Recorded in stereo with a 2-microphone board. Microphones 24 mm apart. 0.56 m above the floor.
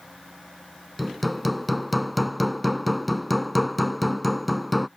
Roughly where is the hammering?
Centre.